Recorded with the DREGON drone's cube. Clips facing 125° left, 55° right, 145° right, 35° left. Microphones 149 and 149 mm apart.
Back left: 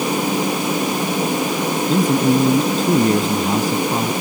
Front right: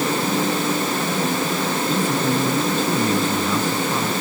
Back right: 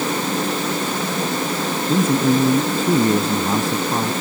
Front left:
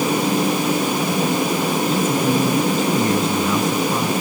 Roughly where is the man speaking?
Behind.